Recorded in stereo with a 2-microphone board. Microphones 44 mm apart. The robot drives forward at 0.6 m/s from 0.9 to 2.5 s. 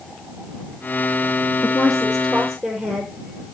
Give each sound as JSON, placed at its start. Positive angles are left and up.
{"t": 1.6, "sound": "a woman speaking", "side_deg": 20, "distance_m": 2.5}